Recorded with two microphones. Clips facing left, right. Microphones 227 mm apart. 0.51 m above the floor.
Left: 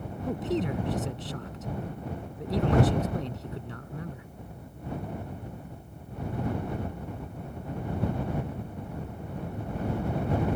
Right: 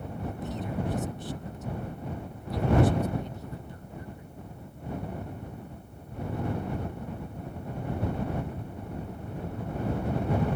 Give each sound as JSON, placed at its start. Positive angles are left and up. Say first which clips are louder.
{"t": 0.3, "sound": "a man speaking", "louder": "left 8 dB", "side_deg": 80}